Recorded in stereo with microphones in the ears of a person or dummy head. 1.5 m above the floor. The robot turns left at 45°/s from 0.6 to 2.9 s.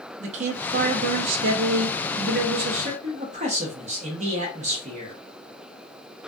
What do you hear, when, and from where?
0.2 s a man speaking: 45° right, 0.6 m; by 5.2 s 145° right, 0.6 m